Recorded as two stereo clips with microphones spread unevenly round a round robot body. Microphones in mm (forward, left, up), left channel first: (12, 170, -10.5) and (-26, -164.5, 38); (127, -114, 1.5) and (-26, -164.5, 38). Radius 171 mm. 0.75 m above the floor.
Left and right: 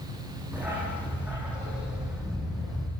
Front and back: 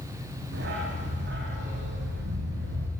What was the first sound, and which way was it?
A dog barking, straight behind.